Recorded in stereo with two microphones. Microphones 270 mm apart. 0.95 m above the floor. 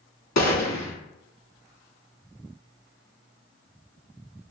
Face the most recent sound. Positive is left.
turn(degrees=75)  # may be behind; listen again after turning